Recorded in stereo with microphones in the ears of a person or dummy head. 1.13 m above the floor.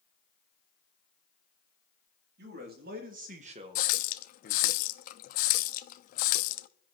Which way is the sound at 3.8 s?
50° left (ahead or behind).